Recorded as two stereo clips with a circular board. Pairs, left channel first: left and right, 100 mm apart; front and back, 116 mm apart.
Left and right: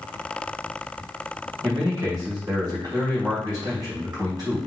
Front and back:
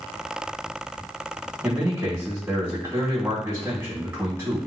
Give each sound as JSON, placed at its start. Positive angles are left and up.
{"t": 1.6, "sound": "a man speaking", "azimuth_deg": -120, "distance_m": 1.8}